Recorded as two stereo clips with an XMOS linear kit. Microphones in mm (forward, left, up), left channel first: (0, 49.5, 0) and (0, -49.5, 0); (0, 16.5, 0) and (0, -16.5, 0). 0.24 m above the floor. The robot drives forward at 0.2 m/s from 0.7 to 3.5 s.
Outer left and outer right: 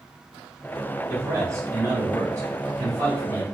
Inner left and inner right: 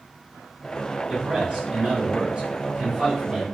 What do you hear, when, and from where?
1.1 s a man speaking: 30° right (ahead or behind), 1.2 m; by 3.5 s 35° right (ahead or behind), 1.2 m